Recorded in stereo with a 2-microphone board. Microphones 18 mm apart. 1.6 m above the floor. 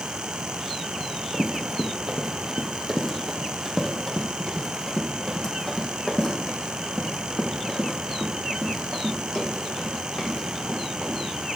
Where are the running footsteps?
40° right (ahead or behind), 2.5 m; by 11.5 s 55° left (ahead or behind), 6 m.